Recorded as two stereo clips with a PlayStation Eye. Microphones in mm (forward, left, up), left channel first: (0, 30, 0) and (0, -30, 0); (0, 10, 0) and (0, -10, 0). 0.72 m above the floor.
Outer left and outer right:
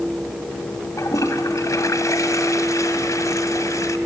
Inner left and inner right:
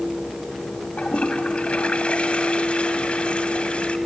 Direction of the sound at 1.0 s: 60° left (ahead or behind).